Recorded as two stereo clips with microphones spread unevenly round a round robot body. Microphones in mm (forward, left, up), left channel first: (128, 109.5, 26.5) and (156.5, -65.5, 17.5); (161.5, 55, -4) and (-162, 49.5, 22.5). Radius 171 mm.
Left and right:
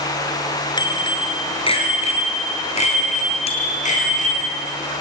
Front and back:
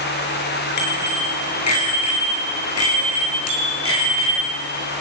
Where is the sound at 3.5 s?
45° left, 4.5 m.